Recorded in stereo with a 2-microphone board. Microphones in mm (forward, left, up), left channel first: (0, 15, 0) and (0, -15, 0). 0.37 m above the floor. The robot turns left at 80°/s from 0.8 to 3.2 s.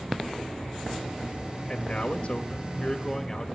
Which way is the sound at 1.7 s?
150° left.